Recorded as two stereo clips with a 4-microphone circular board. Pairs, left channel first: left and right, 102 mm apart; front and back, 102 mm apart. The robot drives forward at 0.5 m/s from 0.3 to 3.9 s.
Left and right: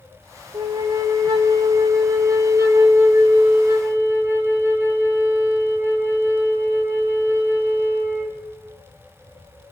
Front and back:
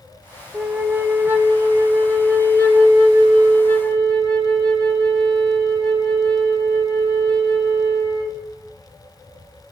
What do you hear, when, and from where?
0.5 s a flute: 105° right, 1.5 m; by 8.3 s 150° right, 2.5 m